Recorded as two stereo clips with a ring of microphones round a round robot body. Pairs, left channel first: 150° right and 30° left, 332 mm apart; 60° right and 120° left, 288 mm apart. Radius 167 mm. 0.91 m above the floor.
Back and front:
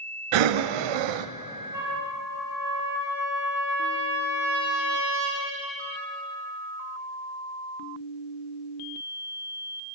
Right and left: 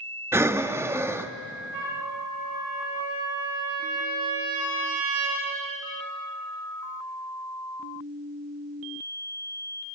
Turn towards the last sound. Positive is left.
turn(degrees=110)